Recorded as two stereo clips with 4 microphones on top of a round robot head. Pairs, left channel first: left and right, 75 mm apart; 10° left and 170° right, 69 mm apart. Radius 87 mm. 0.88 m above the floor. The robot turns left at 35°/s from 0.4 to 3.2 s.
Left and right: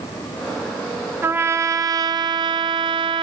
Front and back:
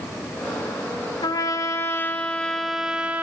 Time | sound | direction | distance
1.2 | a trumpet | 30° right | 1.9 m